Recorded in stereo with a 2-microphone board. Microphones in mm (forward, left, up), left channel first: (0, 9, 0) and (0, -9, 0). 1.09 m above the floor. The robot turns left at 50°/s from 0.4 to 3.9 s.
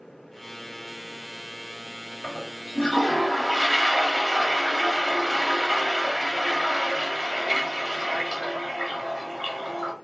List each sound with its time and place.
2.2 s a toilet flushing: 85° left, 2.5 m; by 9.9 s 5° left, 2.5 m